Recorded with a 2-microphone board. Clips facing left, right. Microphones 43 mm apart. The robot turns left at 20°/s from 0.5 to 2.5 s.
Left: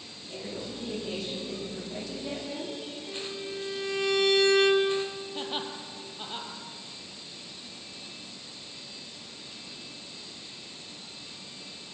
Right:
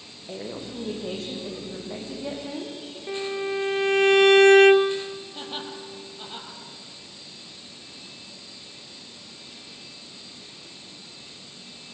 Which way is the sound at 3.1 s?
50° right (ahead or behind).